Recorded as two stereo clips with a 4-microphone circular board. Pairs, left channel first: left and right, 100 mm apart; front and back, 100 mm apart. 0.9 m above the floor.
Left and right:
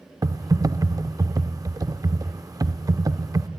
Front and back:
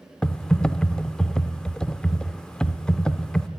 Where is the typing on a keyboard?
75° right, 0.6 m.